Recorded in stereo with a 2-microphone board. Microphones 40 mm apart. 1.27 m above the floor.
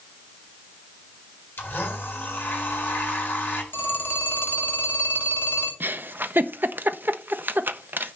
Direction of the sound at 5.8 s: 55° right (ahead or behind).